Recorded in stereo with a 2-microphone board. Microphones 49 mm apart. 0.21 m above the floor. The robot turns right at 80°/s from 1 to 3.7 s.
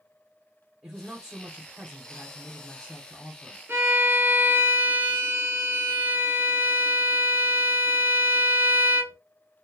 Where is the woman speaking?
10° right (ahead or behind), 1.0 m; by 3.6 s 20° left (ahead or behind), 1.0 m.